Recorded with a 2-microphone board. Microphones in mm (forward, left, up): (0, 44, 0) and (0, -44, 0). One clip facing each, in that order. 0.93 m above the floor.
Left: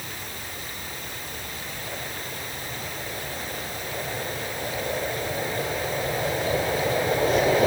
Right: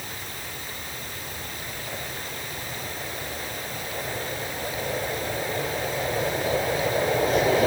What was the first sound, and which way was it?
Only background noise.